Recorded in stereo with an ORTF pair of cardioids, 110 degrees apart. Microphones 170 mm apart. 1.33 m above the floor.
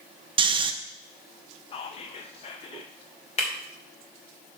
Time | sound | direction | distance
0.4 | snoring | 30° right | 0.9 m
1.7 | whispering | 35° left | 0.6 m
3.4 | breaking glass | 40° left | 2.5 m